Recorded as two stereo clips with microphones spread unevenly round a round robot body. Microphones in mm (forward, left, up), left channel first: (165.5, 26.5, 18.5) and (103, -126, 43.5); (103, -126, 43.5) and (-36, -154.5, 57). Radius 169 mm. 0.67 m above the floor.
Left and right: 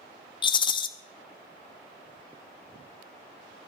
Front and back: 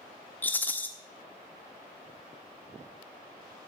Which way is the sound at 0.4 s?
75° left.